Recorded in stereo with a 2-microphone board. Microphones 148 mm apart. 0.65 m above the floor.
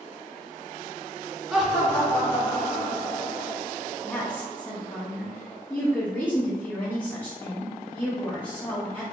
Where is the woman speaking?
10° left (ahead or behind), 1.0 m.